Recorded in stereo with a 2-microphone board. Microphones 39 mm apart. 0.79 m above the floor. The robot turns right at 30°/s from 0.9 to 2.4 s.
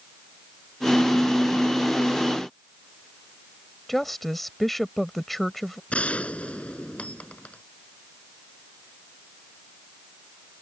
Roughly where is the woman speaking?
Centre.